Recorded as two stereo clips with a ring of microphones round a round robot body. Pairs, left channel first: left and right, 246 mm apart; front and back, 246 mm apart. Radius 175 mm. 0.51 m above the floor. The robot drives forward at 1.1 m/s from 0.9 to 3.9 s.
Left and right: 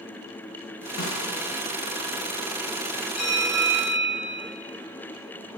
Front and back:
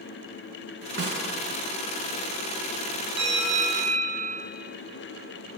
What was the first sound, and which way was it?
A snare drum, 135° left.